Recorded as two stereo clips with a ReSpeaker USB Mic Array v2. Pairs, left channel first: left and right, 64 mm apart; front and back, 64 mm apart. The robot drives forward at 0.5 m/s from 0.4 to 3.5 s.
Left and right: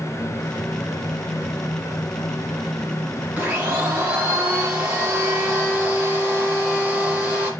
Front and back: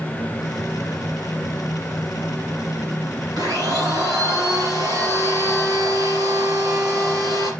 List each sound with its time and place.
3.4 s a blender: 165° right, 5 m